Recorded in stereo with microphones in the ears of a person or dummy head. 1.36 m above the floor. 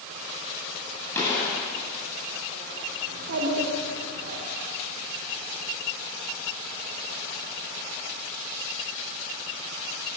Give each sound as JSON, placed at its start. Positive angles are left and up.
{"t": 1.1, "sound": "a gunshot", "side_deg": 15, "distance_m": 9.0}
{"t": 3.1, "sound": "a child speaking", "side_deg": -60, "distance_m": 3.0}